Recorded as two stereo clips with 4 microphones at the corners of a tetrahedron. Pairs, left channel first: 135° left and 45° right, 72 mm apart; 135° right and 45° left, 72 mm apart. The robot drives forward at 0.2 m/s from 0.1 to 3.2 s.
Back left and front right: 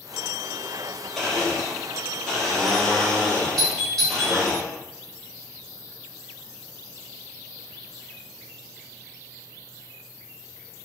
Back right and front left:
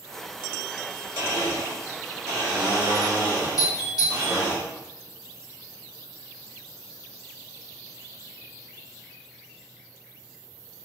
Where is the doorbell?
145° right, 1.8 m.